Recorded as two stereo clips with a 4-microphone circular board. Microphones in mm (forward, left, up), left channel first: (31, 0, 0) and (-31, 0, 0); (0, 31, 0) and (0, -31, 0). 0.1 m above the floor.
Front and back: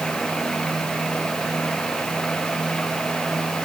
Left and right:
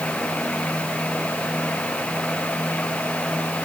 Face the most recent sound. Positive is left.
No sound to turn to.